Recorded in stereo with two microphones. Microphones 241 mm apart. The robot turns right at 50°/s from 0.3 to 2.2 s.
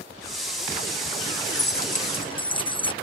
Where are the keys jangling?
120° left; by 2.9 s 160° left.